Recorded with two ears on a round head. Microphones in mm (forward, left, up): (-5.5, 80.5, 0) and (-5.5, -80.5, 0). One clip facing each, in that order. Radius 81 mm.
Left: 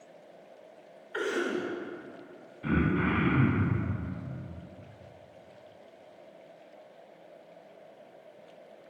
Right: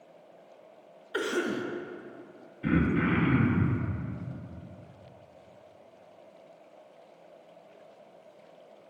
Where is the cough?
45° right (ahead or behind), 0.7 m.